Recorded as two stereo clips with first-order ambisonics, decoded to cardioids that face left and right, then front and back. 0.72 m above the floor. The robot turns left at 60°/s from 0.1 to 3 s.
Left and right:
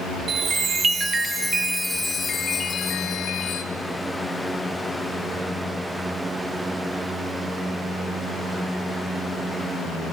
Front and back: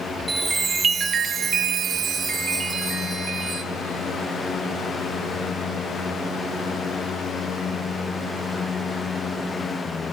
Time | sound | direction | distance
0.3 | a chime | 95° right | 0.6 m